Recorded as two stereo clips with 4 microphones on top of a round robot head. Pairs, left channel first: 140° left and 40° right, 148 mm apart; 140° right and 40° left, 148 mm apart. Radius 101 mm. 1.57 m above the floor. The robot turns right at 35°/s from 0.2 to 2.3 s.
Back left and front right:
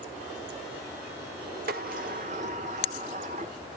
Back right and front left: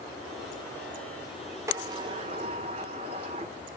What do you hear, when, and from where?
1.7 s a sliding door: 30° right, 1.4 m; by 3.5 s 5° right, 1.4 m